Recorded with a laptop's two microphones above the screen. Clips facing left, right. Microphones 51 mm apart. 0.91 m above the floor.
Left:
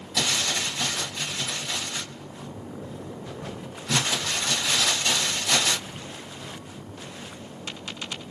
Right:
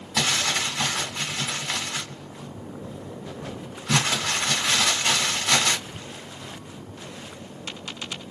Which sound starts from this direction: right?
Crumpling, at 0.2 s.